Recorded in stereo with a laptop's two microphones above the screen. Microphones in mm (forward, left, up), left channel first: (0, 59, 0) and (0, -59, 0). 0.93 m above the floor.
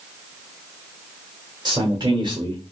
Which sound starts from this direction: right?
A man speaking, at 1.6 s.